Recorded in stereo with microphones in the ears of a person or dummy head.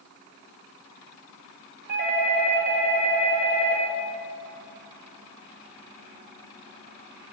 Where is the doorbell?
65° right (ahead or behind), 2 m.